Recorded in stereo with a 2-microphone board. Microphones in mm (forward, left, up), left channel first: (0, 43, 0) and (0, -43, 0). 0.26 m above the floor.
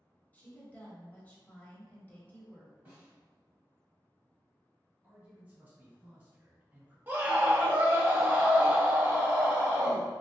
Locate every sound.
0.3 s a woman speaking: 20° left (ahead or behind), 1.0 m
2.9 s a snare drum: 25° right (ahead or behind), 1.5 m
5.0 s a man speaking: 25° right (ahead or behind), 1.8 m
7.1 s a scream: 25° right (ahead or behind), 0.9 m